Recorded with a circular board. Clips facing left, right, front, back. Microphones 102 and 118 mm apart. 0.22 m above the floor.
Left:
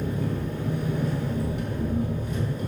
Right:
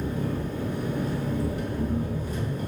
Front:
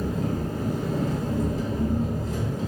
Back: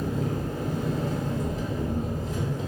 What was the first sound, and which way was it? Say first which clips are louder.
An engine running: even, front 1 dB; 40° right.